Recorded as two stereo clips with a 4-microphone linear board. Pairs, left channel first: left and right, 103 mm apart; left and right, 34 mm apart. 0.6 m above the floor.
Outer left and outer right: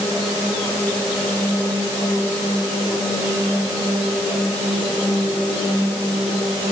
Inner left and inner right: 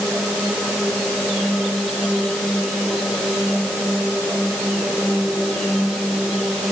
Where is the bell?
No bell in this recording.